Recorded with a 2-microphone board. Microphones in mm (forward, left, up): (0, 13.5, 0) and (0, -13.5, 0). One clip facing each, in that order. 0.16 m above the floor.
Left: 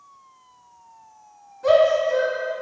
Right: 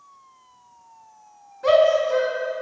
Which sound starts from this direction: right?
A shout, at 1.6 s.